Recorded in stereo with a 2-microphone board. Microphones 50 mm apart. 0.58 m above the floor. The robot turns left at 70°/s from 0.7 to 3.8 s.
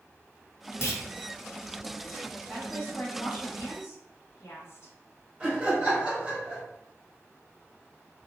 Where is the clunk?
55° left (ahead or behind), 0.6 m; by 1.0 s 70° left (ahead or behind), 0.6 m.